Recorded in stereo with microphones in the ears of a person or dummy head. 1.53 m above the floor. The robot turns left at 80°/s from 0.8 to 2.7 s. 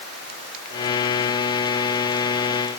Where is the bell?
I don't hear a bell.